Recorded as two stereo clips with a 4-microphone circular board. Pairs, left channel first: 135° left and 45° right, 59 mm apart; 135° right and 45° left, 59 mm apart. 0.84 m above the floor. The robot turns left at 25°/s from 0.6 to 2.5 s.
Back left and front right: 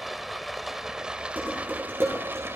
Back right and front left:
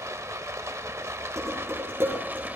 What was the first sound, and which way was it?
Running water, 40° left.